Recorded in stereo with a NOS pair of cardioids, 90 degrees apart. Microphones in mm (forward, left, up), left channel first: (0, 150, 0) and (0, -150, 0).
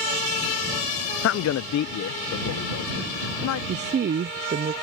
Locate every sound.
1.2 s a man speaking: 50° left; by 3.6 s 75° left
3.7 s a woman speaking: 35° right